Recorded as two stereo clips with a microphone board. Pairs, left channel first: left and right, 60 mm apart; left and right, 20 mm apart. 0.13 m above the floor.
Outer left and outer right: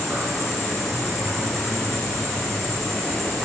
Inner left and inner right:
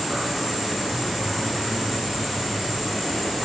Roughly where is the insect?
Centre.